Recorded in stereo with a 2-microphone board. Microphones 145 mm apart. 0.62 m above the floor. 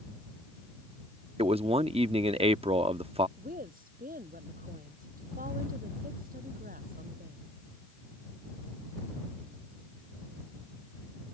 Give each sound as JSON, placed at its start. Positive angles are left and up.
{"t": 1.4, "sound": "a man speaking", "side_deg": -40}
{"t": 3.4, "sound": "a woman speaking", "side_deg": -75}